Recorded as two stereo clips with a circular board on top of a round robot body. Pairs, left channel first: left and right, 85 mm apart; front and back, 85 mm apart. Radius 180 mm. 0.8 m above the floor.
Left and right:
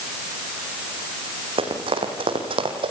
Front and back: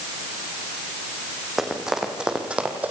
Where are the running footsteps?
95° right, 4 m; by 2.9 s 110° right, 2.5 m.